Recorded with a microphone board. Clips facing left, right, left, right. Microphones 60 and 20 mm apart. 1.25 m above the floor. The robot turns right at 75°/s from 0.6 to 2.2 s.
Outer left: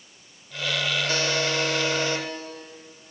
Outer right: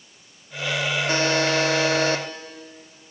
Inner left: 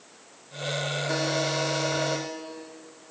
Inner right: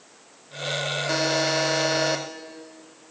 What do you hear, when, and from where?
1.1 s a buzzer: 145° right, 2.5 m; by 2.2 s 60° right, 2.5 m